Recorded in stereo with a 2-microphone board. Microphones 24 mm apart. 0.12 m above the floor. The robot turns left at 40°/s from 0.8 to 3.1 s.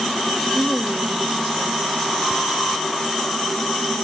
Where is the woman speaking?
50° left, 3.5 m; by 1.9 s 10° left, 3.5 m.